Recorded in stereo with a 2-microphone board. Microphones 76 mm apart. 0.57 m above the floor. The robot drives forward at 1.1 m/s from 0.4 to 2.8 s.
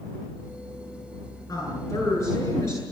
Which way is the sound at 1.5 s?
45° left (ahead or behind).